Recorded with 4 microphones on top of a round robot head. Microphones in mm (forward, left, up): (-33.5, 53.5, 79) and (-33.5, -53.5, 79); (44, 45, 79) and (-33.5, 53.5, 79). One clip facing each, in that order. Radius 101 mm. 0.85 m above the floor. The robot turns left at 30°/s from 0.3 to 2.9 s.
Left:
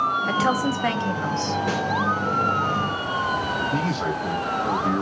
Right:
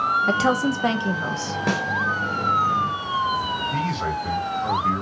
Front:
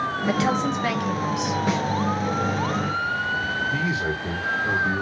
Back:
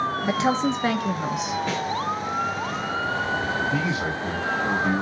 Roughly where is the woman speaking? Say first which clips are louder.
Right 2 dB, even; behind right.